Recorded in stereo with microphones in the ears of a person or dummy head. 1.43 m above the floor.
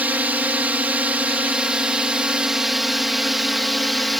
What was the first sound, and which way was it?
A drone, 5° right (ahead or behind).